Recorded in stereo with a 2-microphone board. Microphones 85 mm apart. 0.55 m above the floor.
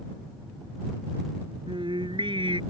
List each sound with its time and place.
1.7 s singing: 75° right (ahead or behind)